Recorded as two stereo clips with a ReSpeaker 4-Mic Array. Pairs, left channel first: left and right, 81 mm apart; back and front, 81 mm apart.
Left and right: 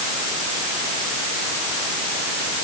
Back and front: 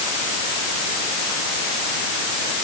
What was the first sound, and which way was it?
Only background noise.